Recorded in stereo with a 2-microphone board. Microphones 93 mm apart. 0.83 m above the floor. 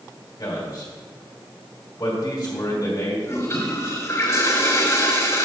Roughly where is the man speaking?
Left.